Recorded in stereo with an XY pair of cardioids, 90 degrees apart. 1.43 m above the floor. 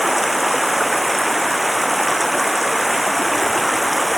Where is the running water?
5° right.